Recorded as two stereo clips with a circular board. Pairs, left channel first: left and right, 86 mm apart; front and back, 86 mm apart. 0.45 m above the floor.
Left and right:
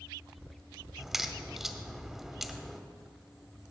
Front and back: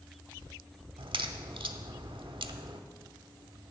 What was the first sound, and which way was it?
A crack, 175° right.